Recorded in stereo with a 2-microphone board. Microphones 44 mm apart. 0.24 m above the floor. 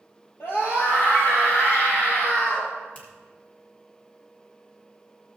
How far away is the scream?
About 4.5 m.